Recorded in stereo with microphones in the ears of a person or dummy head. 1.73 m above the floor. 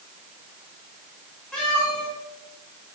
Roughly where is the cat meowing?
Centre.